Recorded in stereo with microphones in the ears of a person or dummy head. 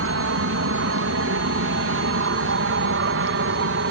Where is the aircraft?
65° right (ahead or behind); by 3.9 s 60° right (ahead or behind).